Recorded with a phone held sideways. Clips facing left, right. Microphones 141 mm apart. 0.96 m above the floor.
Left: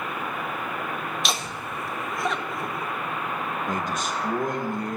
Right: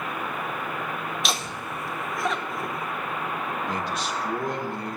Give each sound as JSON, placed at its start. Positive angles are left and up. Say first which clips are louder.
{"t": 1.2, "sound": "laughter", "louder": "even", "side_deg": 0, "distance_m": 0.6}
{"t": 3.7, "sound": "a man speaking", "louder": "left 1 dB", "side_deg": 45, "distance_m": 1.2}